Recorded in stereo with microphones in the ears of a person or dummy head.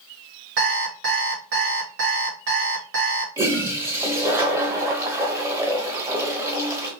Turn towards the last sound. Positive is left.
turn(degrees=-15)  # may be behind; listen again after turning